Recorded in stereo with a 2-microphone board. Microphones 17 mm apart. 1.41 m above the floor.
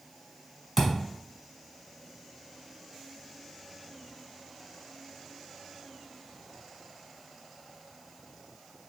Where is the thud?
10° right (ahead or behind), 1.3 m.